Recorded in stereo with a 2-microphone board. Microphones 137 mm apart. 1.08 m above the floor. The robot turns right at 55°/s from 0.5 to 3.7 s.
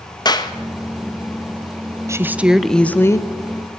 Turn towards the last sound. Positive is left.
turn(degrees=60)